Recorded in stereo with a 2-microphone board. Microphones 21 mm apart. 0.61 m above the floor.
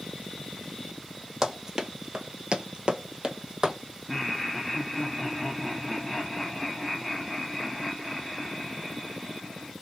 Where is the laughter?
Centre (ahead or behind), 1.2 m.